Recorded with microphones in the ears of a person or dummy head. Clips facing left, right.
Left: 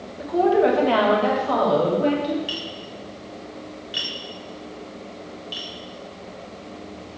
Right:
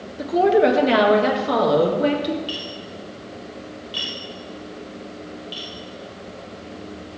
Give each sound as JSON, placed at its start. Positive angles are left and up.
{"t": 0.2, "sound": "a woman speaking", "side_deg": -35, "distance_m": 1.3}
{"t": 2.5, "sound": "tapping", "side_deg": 20, "distance_m": 2.0}